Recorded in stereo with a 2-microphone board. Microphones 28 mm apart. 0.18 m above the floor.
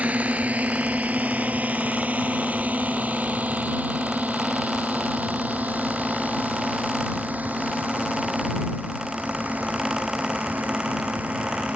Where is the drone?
60° right (ahead or behind); by 11.8 s 70° right (ahead or behind).